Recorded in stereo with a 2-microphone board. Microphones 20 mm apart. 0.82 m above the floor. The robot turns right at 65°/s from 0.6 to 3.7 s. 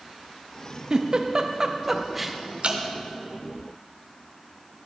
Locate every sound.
0.9 s a giggle: 35° right (ahead or behind), 0.6 m; by 2.4 s 5° right (ahead or behind), 0.6 m
2.6 s dripping: 55° right (ahead or behind), 1.0 m; by 2.8 s 65° right (ahead or behind), 1.0 m